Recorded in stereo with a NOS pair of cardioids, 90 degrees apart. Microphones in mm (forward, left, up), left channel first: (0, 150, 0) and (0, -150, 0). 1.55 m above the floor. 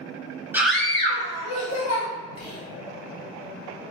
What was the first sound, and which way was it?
A scream, 5° right.